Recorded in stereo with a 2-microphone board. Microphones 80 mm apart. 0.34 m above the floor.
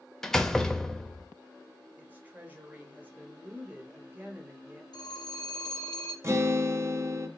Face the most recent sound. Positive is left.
turn(degrees=-35)  # may be behind; listen again after turning